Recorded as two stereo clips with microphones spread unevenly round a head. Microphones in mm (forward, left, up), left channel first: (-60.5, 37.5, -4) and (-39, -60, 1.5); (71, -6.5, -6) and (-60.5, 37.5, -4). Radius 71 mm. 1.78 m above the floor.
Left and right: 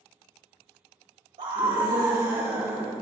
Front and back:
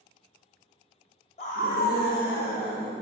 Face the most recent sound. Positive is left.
turn(degrees=0)